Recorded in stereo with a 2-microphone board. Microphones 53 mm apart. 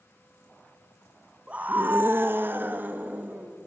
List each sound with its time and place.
1.5 s a scream: 20° right (ahead or behind), 0.5 m; by 3.6 s 35° right (ahead or behind), 1.6 m